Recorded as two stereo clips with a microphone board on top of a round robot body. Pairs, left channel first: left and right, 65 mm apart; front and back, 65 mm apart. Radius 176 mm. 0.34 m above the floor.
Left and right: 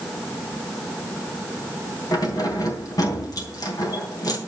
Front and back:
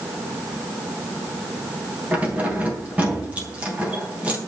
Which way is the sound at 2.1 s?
110° left.